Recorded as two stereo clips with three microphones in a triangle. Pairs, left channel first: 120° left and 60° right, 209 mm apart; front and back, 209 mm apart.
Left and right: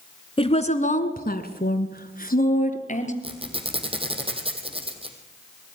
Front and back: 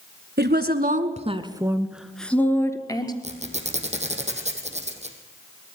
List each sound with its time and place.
0.4 s a woman speaking: straight behind, 1.7 m; by 3.1 s 70° left, 2.5 m
3.2 s a squeak: 125° right, 3 m